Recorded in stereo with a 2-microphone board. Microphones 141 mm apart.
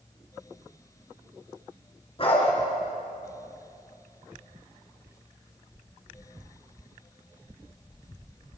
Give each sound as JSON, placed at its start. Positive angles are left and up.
{"t": 2.2, "sound": "a dog barking", "side_deg": 40, "distance_m": 6.0}
{"t": 5.0, "sound": "whispering", "side_deg": -20, "distance_m": 1.0}